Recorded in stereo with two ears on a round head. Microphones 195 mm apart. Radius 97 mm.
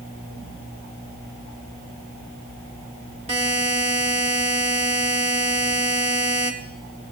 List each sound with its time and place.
3.3 s a buzzer: 30° right (ahead or behind), 1.6 m